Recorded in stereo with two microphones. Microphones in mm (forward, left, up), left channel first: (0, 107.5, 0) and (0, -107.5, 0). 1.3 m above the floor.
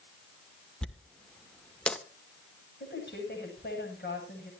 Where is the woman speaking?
50° left (ahead or behind), 9 m.